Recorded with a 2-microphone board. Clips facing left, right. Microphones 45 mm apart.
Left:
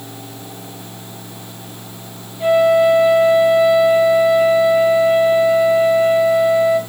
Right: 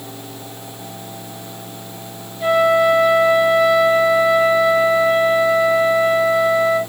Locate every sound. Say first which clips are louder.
2.4 s a flute: left 2 dB; 5° left (ahead or behind), 3.5 m